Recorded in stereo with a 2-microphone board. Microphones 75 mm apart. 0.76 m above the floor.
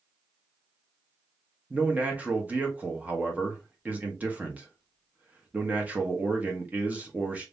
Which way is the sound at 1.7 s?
20° right (ahead or behind).